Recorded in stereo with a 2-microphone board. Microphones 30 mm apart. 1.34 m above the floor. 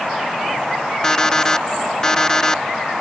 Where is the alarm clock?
20° left (ahead or behind).